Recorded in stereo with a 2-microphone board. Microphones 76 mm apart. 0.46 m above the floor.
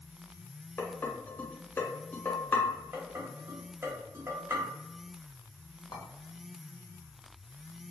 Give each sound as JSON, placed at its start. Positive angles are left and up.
{"t": 0.8, "sound": "dishes clattering", "side_deg": 25, "distance_m": 1.1}
{"t": 2.9, "sound": "dishes clattering", "side_deg": -35, "distance_m": 1.6}
{"t": 5.9, "sound": "a clink", "side_deg": 60, "distance_m": 0.9}